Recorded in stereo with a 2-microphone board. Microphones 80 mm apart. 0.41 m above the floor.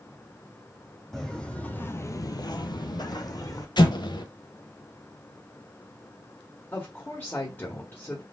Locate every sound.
1.1 s footsteps: 5° left (ahead or behind), 1.2 m; by 3.7 s 50° left (ahead or behind), 1.3 m
3.8 s an explosion: 70° left (ahead or behind), 0.9 m
6.7 s a woman speaking: 25° left (ahead or behind), 1.4 m